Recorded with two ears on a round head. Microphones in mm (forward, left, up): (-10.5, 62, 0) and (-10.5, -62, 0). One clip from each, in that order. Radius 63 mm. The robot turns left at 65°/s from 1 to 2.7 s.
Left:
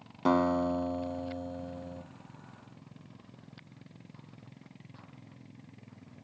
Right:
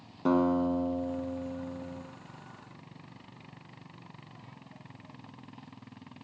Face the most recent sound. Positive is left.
turn(degrees=15)